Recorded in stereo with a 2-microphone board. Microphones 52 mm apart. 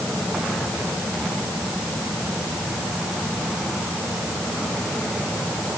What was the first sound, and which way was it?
Only background noise.